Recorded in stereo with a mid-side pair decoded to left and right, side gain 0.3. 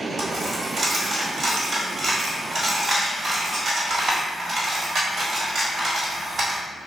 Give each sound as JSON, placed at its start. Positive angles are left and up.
{"t": 0.2, "sound": "a dropped coin", "azimuth_deg": -60, "distance_m": 1.3}